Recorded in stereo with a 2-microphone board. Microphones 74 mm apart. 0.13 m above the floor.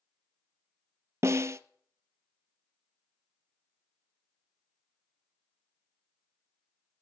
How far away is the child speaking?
I don't hear a child speaking.